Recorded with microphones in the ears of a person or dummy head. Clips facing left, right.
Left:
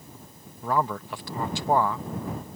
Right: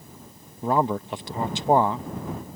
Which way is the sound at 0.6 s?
20° right (ahead or behind).